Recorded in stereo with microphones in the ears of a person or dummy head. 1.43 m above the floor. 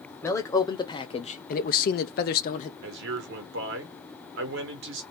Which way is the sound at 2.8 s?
70° right (ahead or behind).